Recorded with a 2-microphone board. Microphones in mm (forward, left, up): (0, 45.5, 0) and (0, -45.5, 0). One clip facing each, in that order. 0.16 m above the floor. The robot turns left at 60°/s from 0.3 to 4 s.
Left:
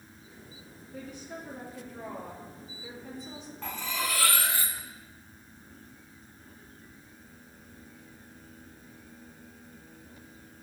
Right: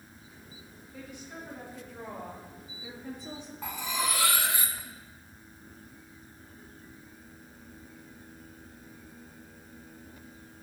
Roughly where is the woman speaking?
Ahead left.